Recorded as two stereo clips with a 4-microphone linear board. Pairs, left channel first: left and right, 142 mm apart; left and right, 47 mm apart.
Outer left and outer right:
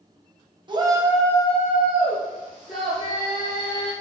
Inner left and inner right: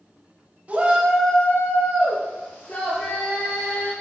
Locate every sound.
0.7 s a shout: 35° right (ahead or behind), 1.0 m; by 3.9 s 75° left (ahead or behind), 3 m